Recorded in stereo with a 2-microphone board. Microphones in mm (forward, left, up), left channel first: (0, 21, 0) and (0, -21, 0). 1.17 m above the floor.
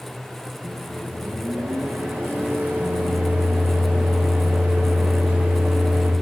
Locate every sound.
0.6 s a microwave: 55° right (ahead or behind), 0.7 m